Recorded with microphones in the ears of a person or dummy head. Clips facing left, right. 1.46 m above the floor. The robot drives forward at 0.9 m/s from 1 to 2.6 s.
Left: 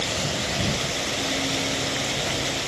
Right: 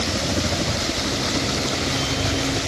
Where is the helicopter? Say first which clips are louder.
Right 5 dB; 65° right (ahead or behind); by 2.7 s 75° right (ahead or behind).